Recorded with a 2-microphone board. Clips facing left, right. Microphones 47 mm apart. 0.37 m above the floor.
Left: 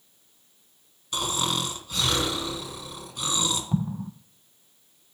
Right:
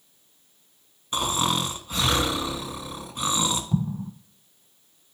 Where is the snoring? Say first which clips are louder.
Right 3 dB; 25° right (ahead or behind), 1.0 m.